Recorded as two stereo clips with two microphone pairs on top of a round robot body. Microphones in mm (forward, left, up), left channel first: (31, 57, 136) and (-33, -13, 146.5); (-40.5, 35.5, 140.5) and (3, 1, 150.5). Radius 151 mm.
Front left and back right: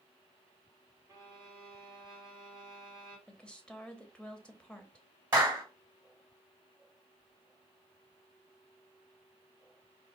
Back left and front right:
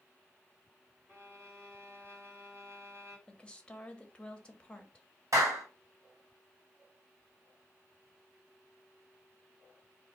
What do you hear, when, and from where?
1.1 s a violin: 75° right, 2.0 m
3.3 s a woman speaking: 110° left, 1.0 m
5.3 s a clap: 65° right, 1.8 m